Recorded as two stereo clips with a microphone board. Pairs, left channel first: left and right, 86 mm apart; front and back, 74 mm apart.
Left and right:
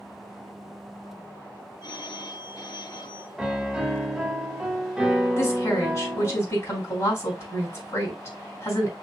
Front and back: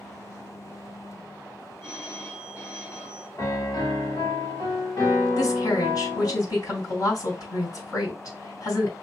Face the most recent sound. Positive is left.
turn(degrees=35)